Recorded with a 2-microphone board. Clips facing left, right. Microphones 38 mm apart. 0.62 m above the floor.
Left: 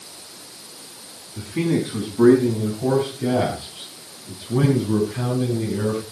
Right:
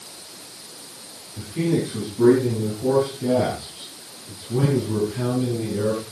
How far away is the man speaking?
About 5.5 m.